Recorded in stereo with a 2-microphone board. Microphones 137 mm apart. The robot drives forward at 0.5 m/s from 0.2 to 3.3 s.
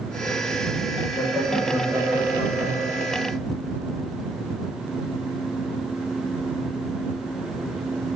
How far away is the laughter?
About 3.5 m.